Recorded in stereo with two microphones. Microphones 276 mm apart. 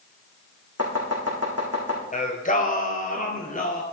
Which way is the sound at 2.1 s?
30° left (ahead or behind).